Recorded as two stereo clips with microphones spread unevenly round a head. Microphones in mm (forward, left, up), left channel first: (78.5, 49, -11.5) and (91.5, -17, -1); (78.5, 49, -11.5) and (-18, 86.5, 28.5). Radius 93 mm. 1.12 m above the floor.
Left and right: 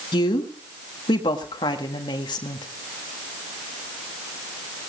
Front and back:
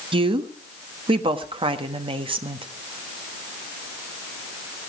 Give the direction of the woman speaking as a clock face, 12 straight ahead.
8 o'clock.